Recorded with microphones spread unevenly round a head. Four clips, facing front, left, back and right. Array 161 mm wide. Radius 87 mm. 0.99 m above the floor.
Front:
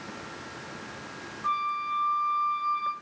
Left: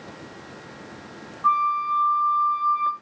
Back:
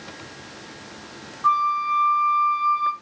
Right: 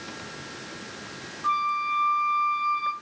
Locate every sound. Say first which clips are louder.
1.4 s a flute: left 5 dB, back 9 dB; 110° left, 4 m